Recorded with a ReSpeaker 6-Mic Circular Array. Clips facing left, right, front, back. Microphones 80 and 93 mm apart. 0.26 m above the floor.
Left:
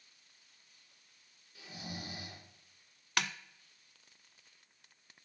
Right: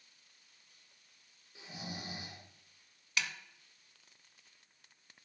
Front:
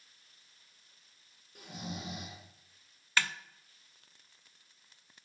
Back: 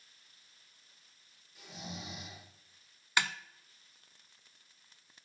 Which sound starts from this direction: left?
A snare drum, at 3.2 s.